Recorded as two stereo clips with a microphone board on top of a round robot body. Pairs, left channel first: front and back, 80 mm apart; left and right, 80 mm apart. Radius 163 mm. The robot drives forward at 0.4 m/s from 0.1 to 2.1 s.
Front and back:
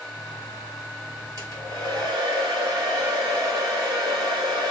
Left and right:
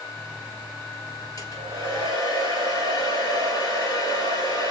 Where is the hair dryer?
140° left, 1.8 m; by 4.7 s 145° left, 2 m.